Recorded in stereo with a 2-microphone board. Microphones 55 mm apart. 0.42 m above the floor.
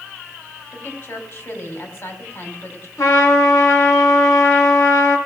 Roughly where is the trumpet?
Left.